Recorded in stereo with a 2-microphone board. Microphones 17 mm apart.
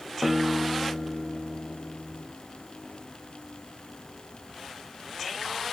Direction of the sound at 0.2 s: 25° right (ahead or behind).